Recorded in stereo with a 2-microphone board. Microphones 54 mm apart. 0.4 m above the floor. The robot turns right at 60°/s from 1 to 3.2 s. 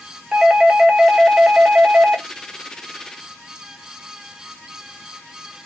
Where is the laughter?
I don't hear laughter.